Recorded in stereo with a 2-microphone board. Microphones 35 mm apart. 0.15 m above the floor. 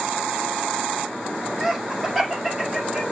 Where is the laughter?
5° right (ahead or behind), 5 m; by 3.0 s 15° right (ahead or behind), 3.5 m.